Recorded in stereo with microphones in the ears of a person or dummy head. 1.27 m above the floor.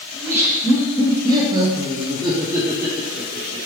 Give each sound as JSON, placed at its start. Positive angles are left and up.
{"t": 0.1, "sound": "laughter", "side_deg": -15, "distance_m": 1.3}